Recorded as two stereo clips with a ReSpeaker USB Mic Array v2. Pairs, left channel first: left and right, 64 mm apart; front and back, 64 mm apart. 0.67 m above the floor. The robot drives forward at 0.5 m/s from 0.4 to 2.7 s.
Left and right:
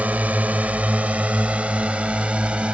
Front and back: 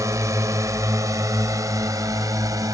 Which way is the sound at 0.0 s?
155° right.